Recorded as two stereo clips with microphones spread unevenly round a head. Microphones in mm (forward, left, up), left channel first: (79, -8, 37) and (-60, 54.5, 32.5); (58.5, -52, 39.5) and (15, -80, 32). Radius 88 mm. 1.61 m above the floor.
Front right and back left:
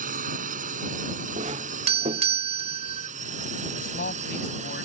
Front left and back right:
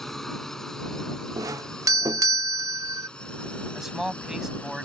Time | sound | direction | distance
0.0 | a drone | 120° left | ?
1.4 | a doorbell | 150° right | ?
3.8 | a man speaking | 65° right | ?